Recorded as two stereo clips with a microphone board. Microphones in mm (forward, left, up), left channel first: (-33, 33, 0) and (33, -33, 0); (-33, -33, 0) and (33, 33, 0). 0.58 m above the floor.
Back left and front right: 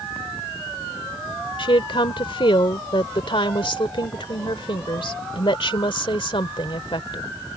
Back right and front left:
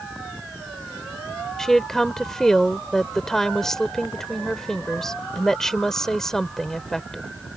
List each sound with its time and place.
1.6 s a woman speaking: 140° left